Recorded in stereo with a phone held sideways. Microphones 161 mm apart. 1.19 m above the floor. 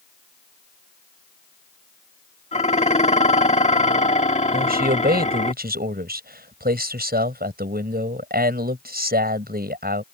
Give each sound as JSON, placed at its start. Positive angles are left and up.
{"t": 2.5, "sound": "dishes clattering", "side_deg": 45}
{"t": 4.5, "sound": "a man speaking", "side_deg": -80}